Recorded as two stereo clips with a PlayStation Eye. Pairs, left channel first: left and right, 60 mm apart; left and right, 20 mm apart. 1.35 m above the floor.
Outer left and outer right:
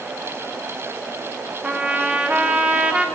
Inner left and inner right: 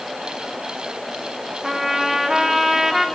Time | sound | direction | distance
1.6 | a trumpet | 20° right (ahead or behind) | 1.0 m